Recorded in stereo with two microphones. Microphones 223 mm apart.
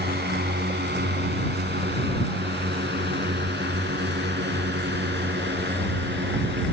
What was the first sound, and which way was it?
A drone, 50° right (ahead or behind).